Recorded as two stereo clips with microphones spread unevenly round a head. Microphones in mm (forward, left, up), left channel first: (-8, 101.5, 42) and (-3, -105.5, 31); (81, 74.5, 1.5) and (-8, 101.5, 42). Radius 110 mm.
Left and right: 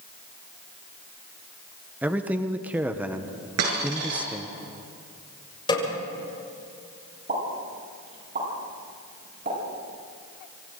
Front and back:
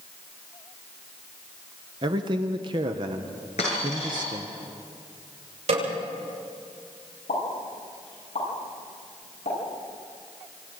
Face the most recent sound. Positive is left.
turn(degrees=-35)